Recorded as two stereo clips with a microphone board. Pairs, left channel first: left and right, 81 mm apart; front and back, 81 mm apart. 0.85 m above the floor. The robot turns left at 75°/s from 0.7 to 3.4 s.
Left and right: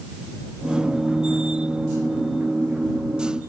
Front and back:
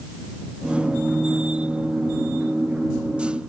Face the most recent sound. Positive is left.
No sound to turn to.